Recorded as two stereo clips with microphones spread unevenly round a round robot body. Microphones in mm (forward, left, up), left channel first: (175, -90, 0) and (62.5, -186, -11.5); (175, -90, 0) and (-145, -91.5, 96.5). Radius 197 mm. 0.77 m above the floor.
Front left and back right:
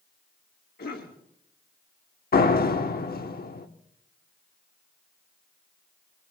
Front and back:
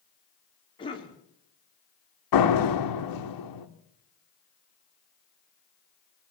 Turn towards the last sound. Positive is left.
turn(degrees=20)